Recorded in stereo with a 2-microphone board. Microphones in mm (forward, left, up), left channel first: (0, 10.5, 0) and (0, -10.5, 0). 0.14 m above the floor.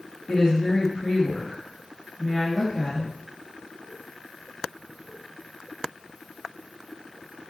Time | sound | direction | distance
0.3 | a woman speaking | 10° left (ahead or behind) | 2 m